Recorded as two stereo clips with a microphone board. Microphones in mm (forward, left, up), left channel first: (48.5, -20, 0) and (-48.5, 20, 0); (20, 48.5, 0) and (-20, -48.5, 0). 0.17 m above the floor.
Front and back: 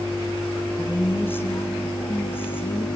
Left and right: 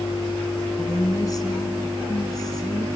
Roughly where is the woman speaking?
Ahead left.